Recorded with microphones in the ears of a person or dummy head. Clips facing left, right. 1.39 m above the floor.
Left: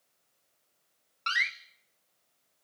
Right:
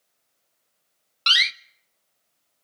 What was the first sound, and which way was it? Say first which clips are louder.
A door slam: right 5 dB; 50° right (ahead or behind).